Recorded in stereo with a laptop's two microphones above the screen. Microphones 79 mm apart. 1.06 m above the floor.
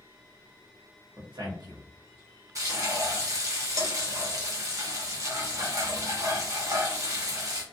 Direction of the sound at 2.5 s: 40° right (ahead or behind).